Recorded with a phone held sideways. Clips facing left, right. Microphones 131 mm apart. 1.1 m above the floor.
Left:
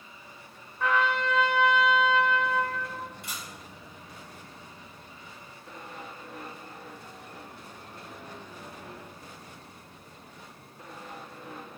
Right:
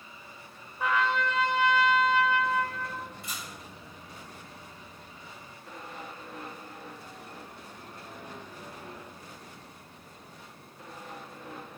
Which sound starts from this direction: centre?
A trumpet, at 0.8 s.